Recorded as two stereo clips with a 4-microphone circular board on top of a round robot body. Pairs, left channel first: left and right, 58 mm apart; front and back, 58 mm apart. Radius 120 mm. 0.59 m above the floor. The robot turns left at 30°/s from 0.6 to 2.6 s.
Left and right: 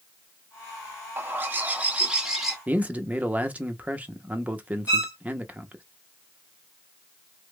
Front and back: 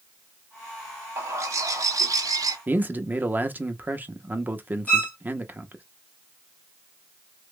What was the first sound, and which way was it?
A bird, 135° right.